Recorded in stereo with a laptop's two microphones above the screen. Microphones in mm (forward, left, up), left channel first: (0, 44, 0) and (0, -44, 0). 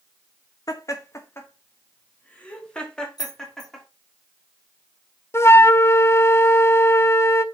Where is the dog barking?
No dog barking in this recording.